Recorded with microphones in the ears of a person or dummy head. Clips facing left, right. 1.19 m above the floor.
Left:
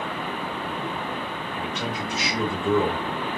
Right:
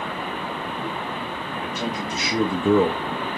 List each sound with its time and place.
1.5 s a man speaking: 5° right (ahead or behind), 1.4 m; by 3.0 s 60° right (ahead or behind), 0.6 m